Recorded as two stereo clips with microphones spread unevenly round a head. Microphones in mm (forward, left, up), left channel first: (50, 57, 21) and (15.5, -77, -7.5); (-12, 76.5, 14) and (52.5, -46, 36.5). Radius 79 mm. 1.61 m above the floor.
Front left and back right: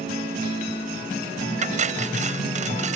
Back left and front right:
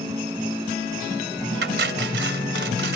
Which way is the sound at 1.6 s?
65° right.